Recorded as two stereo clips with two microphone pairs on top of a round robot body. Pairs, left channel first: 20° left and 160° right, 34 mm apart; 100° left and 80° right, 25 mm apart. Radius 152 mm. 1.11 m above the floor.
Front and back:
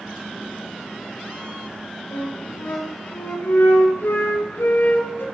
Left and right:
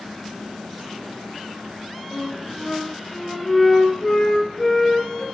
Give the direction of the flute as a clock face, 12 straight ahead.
11 o'clock.